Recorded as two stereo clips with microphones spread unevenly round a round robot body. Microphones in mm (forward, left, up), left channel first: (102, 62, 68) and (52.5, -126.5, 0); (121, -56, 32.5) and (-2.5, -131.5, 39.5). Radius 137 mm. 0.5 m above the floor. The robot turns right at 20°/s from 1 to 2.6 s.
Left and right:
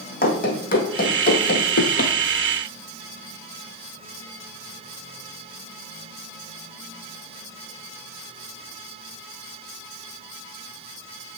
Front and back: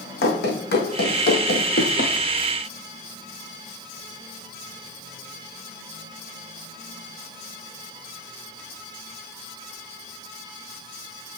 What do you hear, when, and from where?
0.2 s running footsteps: 35° left, 1.7 m; by 2.1 s 80° left, 0.8 m